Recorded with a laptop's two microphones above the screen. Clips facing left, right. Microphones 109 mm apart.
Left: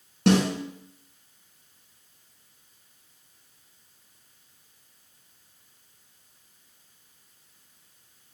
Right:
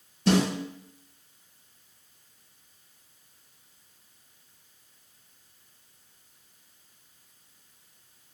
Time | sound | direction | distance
0.3 | a snare drum | 80° left | 4.5 m